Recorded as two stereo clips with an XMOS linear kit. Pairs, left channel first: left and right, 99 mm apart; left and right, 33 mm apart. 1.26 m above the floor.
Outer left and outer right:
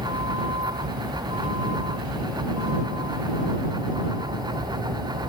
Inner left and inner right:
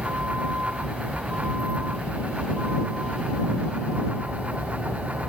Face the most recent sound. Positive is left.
turn(degrees=-65)  # may be behind; listen again after turning